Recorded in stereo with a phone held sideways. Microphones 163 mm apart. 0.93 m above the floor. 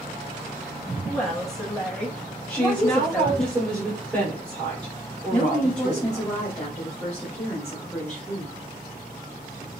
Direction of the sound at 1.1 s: 5° left (ahead or behind).